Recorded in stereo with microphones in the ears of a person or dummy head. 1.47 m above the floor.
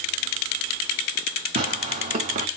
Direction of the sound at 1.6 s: 35° right (ahead or behind).